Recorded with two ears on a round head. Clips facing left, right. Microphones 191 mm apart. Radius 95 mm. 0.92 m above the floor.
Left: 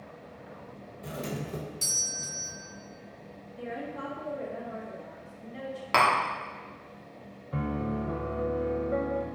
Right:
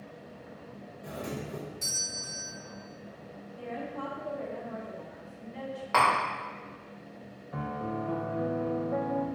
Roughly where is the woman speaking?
Left.